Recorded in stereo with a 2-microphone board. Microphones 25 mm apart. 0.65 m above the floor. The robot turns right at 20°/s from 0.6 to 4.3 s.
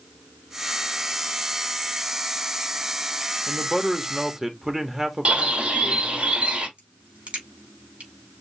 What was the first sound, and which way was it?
A man speaking, 5° right (ahead or behind).